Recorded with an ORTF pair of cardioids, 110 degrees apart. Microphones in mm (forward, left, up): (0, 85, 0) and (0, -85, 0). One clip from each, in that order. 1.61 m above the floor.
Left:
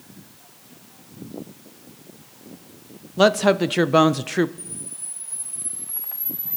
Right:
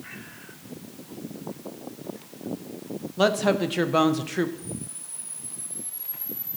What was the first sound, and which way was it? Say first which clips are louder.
A woman speaking: left 5 dB; 25° left.